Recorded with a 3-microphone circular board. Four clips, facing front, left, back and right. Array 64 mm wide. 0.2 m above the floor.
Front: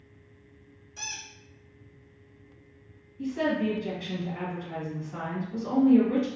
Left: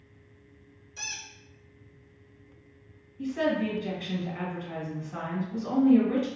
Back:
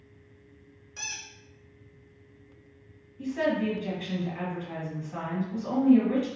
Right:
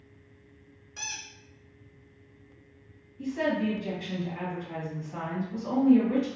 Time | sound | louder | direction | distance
1.0 | a squeak | even, even | 125° right | 1.5 m
3.2 | a woman speaking | left 1 dB, even | 150° left | 1.4 m